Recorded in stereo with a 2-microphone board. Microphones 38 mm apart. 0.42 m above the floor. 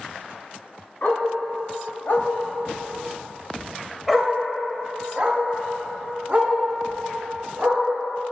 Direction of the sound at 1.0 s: 65° left (ahead or behind).